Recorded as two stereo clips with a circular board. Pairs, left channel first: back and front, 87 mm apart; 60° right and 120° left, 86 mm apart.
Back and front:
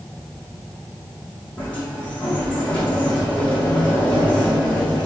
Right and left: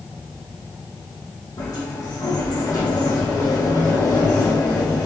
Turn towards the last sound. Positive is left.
turn(degrees=-105)